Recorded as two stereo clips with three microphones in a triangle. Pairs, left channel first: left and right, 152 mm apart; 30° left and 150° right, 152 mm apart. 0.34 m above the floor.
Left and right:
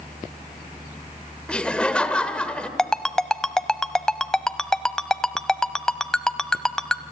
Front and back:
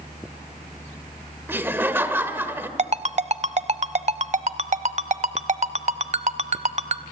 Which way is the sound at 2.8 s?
175° left.